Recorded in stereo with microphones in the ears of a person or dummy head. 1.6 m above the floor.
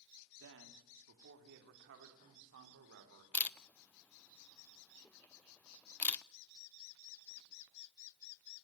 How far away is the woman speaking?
About 2.5 m.